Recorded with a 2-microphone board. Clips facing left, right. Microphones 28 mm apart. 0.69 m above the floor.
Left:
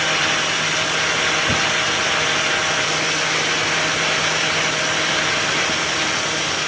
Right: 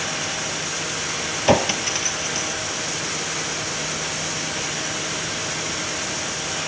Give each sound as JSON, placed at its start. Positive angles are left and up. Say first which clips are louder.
{"t": 1.5, "sound": "a clink", "louder": "left 1 dB", "side_deg": -65}